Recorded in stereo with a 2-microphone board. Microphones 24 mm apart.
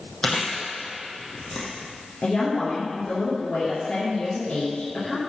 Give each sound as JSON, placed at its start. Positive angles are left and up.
{"t": 0.2, "sound": "chewing", "side_deg": 45, "distance_m": 2.5}
{"t": 2.2, "sound": "a woman speaking", "side_deg": 50, "distance_m": 3.5}